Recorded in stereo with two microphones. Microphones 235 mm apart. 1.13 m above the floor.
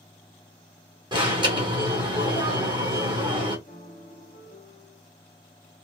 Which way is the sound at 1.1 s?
20° right (ahead or behind).